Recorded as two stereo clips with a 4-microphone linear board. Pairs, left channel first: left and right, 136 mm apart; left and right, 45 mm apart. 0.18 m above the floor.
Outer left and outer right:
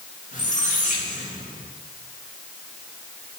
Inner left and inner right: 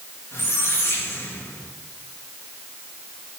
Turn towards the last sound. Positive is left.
turn(degrees=70)  # may be behind; listen again after turning